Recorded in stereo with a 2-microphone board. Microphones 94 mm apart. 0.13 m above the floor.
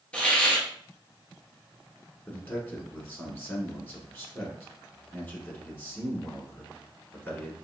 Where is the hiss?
15° left (ahead or behind), 1.0 m.